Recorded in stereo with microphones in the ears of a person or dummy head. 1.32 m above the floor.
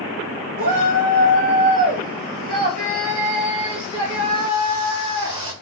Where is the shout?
45° right (ahead or behind), 1.9 m; by 5.5 s 30° right (ahead or behind), 5 m.